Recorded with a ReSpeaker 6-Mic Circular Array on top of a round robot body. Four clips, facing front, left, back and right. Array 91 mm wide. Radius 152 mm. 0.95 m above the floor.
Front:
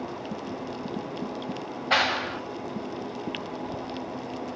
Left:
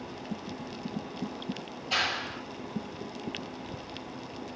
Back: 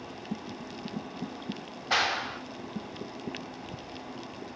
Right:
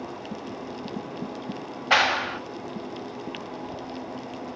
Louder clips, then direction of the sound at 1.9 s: Right 10 dB, front 4 dB; 75° right.